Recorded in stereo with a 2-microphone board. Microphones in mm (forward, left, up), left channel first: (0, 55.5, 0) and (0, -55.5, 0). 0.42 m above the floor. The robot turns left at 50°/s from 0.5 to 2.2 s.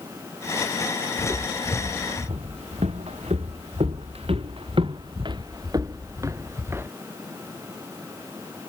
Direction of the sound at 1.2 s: 20° right (ahead or behind).